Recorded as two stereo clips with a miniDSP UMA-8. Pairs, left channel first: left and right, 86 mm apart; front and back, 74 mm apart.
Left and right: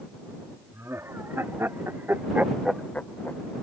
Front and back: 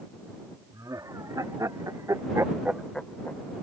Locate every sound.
0.7 s laughter: 150° right; by 3.4 s 40° left